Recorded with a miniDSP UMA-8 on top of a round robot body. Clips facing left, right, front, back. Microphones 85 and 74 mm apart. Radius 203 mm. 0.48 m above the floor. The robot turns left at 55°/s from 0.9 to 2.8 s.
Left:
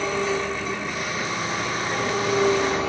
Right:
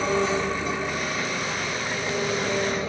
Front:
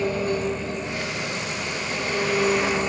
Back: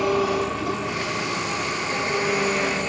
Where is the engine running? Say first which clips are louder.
Right 1 dB, back 3 dB; straight behind, 4 m; by 2.9 s 75° left, 4 m.